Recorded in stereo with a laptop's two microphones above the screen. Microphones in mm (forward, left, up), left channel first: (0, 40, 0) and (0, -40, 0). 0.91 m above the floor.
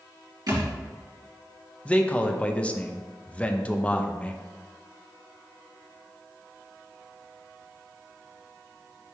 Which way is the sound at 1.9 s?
15° left (ahead or behind).